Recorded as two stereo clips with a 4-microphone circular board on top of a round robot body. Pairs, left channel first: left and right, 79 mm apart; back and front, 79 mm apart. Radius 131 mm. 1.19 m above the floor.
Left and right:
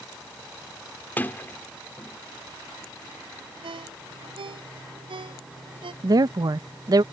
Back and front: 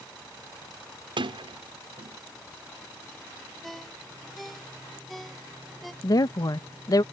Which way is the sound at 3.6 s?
90° right.